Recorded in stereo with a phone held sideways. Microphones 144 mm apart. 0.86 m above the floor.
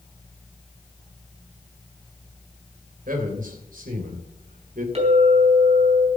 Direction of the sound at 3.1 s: 75° right (ahead or behind).